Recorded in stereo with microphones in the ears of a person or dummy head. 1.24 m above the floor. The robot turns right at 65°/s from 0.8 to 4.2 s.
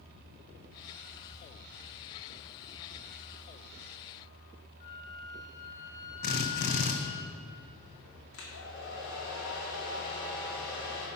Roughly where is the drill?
Left.